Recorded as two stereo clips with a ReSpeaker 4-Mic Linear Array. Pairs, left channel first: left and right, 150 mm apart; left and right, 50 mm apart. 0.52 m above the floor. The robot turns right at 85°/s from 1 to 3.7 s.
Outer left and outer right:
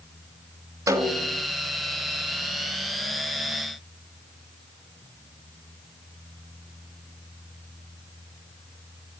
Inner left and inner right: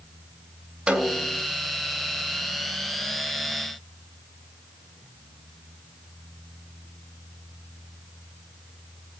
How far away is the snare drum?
About 2.5 m.